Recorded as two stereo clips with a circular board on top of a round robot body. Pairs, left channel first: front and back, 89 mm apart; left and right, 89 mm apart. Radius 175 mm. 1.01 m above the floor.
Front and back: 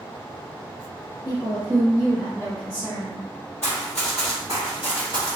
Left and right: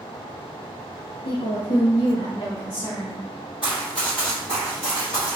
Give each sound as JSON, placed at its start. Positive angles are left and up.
{"t": 1.2, "sound": "a woman speaking", "azimuth_deg": 80, "distance_m": 0.6}
{"t": 3.6, "sound": "running footsteps", "azimuth_deg": 60, "distance_m": 1.4}